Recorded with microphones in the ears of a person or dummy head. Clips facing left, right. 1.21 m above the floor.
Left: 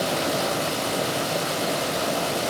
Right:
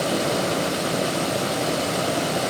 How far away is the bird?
I don't hear a bird.